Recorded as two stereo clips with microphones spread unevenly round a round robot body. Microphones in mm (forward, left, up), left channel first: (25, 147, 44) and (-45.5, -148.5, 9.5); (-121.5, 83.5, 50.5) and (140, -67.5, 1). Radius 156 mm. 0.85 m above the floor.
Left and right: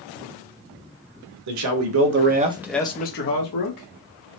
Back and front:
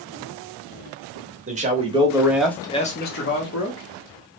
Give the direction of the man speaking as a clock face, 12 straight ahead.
3 o'clock.